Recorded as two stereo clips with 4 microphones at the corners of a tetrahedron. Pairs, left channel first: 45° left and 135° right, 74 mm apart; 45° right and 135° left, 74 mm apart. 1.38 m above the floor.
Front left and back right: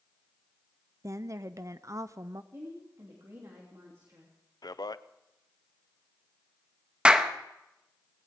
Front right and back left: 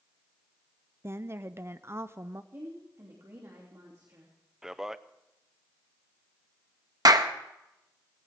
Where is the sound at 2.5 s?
Straight behind, 3 m.